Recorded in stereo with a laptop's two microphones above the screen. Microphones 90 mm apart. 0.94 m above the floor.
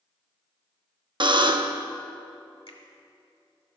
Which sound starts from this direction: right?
A buzzer, at 1.2 s.